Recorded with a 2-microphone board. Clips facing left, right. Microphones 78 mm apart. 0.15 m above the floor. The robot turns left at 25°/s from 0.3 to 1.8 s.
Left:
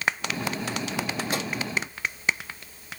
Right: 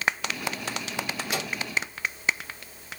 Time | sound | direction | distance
1.3 | a microwave | 30° left (ahead or behind) | 3.5 m